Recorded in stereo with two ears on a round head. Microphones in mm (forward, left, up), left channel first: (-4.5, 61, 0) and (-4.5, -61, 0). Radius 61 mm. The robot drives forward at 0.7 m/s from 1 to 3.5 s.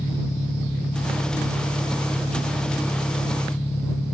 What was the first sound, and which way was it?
An engine running, 20° left (ahead or behind).